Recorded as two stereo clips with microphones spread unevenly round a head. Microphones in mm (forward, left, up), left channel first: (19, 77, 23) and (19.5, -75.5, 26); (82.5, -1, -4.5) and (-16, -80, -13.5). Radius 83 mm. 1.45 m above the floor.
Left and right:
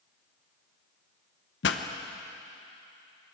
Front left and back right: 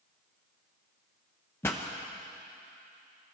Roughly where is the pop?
Behind left.